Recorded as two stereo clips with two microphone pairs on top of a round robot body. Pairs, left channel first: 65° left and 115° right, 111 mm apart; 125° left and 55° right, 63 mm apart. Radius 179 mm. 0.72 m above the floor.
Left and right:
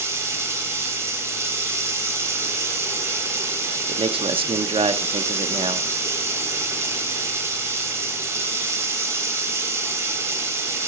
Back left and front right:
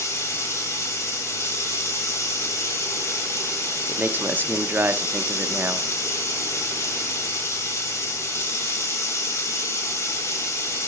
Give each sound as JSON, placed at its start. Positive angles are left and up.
{"t": 0.0, "sound": "running water", "azimuth_deg": 175, "distance_m": 1.3}
{"t": 3.9, "sound": "a man speaking", "azimuth_deg": -105, "distance_m": 0.8}